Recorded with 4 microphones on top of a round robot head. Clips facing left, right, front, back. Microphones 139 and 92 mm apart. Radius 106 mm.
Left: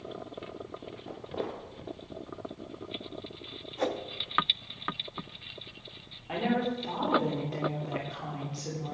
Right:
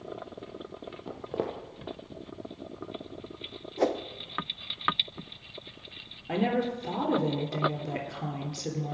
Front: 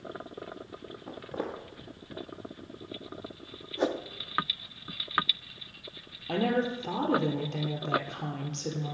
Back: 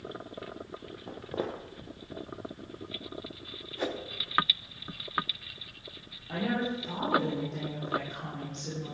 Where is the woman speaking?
35° right, 3.5 m.